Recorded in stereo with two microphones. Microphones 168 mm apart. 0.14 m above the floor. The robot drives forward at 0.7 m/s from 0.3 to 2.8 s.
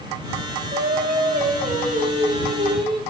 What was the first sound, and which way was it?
Singing, 65° right (ahead or behind).